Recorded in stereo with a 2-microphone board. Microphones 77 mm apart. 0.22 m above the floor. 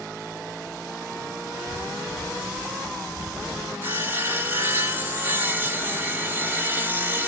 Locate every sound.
1.7 s footsteps: 35° left (ahead or behind), 1.3 m; by 3.7 s 20° right (ahead or behind), 1.0 m
3.8 s sawing: 25° right (ahead or behind), 1.5 m